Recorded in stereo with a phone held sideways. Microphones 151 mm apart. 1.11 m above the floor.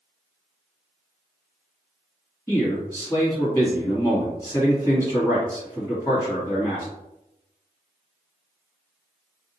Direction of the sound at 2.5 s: 15° left (ahead or behind).